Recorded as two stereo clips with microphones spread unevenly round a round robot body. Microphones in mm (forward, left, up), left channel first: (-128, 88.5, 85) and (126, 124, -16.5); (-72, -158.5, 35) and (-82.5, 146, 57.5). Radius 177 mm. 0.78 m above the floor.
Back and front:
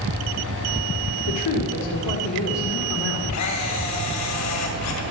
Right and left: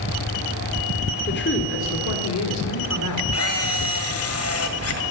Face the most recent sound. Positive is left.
turn(degrees=-130)